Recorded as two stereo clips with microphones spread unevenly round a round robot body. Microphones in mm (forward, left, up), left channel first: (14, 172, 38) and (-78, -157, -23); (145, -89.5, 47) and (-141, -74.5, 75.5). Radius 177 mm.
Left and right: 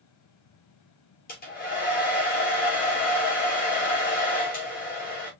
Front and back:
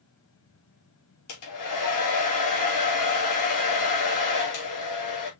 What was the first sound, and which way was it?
A hair dryer, 5° left.